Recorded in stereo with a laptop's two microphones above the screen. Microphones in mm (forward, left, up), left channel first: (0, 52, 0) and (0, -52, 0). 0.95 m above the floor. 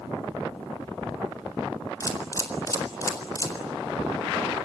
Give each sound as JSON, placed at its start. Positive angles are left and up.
{"t": 2.0, "sound": "a camera shutter", "side_deg": 30, "distance_m": 4.0}